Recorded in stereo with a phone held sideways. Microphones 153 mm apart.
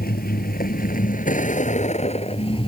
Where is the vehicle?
80° left; by 2.7 s 35° left (ahead or behind).